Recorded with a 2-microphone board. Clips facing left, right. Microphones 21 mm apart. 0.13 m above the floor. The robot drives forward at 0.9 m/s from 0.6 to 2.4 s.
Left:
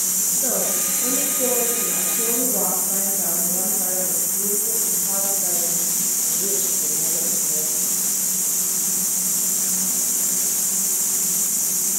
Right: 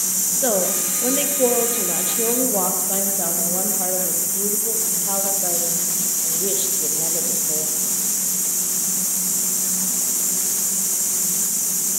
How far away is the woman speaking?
About 3.5 m.